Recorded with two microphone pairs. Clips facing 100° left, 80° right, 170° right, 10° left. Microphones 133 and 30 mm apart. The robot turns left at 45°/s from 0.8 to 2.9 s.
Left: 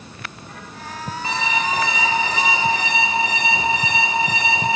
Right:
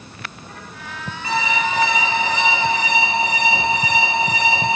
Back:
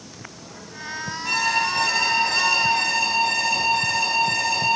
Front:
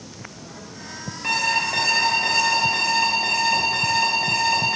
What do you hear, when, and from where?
1.2 s an alarm clock: 40° left, 2.5 m; by 4.8 s 35° right, 2.5 m